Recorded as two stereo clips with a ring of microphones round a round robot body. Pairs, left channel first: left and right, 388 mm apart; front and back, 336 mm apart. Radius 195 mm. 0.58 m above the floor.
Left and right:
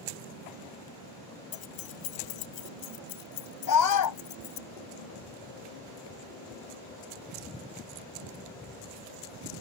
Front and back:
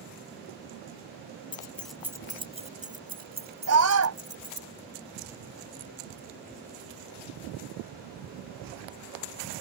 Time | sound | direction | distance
1.5 | keys jangling | 65° left | ?
3.7 | a scream | 135° left | ?